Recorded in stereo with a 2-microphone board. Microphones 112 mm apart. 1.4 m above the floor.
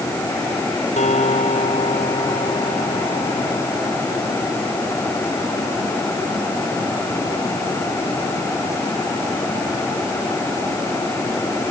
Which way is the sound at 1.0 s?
90° left.